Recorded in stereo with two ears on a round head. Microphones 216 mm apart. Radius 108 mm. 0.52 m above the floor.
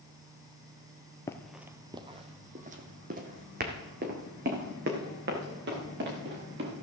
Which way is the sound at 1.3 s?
15° left (ahead or behind).